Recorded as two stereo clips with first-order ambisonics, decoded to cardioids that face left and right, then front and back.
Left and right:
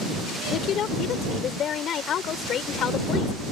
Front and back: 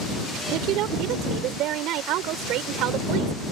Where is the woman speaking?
145° left.